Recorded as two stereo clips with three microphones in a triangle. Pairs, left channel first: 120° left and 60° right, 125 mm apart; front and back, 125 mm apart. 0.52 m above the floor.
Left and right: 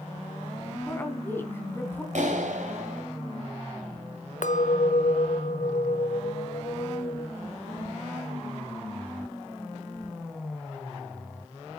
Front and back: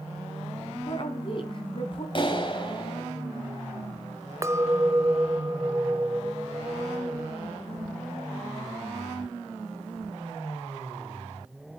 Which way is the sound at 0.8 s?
45° left.